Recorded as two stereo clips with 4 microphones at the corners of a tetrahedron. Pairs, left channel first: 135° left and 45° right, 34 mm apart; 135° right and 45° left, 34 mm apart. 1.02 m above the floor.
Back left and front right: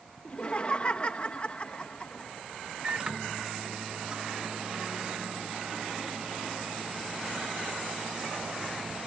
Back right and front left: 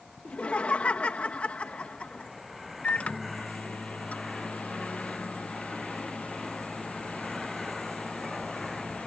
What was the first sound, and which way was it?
Laughter, 175° right.